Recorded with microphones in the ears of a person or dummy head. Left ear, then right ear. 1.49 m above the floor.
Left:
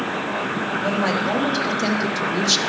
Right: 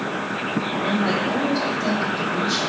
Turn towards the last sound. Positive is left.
turn(degrees=65)  # may be behind; listen again after turning